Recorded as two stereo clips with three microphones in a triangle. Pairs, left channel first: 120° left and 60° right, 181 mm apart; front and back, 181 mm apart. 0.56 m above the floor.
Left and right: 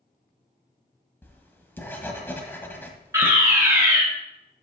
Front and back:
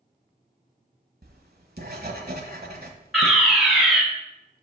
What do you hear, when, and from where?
1.2 s writing: 160° right, 1.2 m
3.1 s a fire alarm: 95° right, 1.8 m